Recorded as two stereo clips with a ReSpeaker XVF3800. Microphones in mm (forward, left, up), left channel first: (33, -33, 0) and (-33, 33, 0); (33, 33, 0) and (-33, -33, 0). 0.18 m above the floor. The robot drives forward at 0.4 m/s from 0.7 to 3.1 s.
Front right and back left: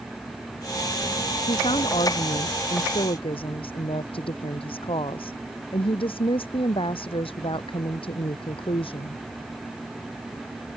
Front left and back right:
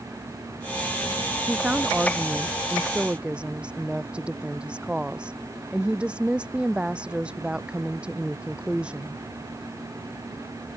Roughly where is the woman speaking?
Ahead right.